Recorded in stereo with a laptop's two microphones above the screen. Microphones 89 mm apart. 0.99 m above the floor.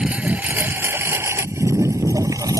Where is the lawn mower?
10° right (ahead or behind); by 2.6 s 40° right (ahead or behind).